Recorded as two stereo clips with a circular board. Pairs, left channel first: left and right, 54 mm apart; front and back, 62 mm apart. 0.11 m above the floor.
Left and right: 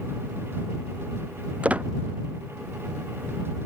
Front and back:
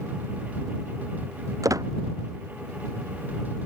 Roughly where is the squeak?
Behind right.